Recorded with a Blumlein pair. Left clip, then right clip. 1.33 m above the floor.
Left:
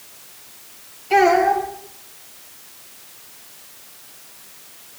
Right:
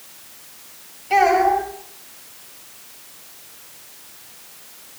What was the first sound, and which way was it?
A child speaking, 5° right.